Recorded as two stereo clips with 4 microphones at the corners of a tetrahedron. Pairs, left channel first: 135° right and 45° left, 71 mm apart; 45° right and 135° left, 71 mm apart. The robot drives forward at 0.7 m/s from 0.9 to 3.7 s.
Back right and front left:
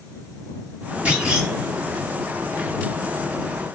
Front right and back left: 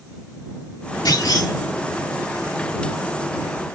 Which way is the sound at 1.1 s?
30° right.